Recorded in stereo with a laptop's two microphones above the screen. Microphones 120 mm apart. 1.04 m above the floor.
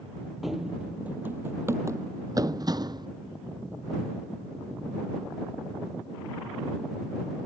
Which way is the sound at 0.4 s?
Centre (ahead or behind).